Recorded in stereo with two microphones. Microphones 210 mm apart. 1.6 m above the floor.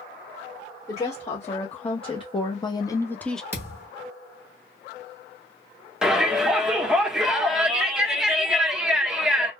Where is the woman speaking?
25° left (ahead or behind), 1.3 m; by 3.4 s centre (ahead or behind), 0.5 m.